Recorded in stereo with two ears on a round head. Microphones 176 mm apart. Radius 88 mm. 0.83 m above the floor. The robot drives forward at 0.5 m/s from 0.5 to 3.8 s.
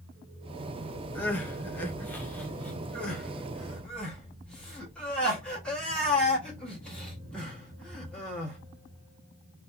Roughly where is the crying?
Centre.